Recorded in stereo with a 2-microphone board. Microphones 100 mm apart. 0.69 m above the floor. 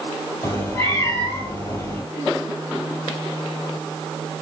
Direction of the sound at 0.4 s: 25° left (ahead or behind).